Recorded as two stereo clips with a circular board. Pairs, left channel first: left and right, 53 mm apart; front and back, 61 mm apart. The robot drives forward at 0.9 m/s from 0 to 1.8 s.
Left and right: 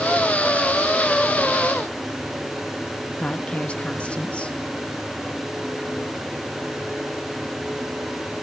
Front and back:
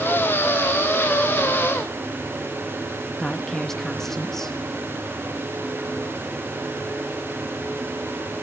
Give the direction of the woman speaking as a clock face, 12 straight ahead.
10 o'clock.